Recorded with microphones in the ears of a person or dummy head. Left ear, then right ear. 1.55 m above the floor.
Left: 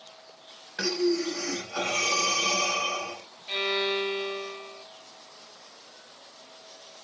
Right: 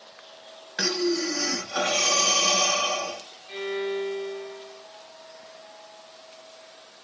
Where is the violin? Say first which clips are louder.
Left 3 dB; 40° left (ahead or behind), 0.7 m.